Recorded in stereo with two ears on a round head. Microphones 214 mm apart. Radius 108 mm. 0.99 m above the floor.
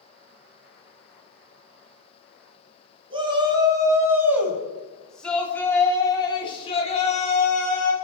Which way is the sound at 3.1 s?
20° right (ahead or behind).